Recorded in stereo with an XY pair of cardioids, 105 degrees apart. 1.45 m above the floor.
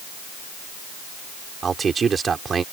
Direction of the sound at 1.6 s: 40° right.